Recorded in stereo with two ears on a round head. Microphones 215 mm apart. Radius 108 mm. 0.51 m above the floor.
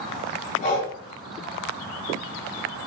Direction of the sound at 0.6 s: 80° left.